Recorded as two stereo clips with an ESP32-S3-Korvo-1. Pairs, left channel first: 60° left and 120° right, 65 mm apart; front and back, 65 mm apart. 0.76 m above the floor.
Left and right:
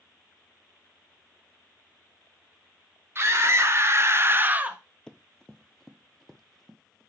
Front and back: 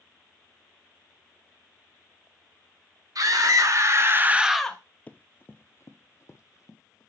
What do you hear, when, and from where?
3.1 s a scream: 165° right, 2.5 m; by 4.8 s 55° right, 1.1 m
5.1 s running footsteps: 10° left, 0.8 m; by 7.1 s 25° right, 1.6 m